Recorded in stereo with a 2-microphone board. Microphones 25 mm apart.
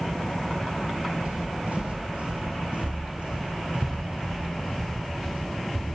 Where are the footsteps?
65° right (ahead or behind), 2.5 m; by 5.8 s 50° right (ahead or behind), 7 m.